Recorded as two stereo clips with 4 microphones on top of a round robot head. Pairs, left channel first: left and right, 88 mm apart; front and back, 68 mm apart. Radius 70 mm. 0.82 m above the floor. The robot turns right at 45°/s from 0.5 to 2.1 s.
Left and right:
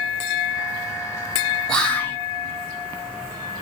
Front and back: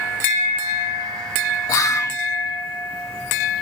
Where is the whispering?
10° left, 0.7 m; by 2.2 s 25° left, 0.7 m.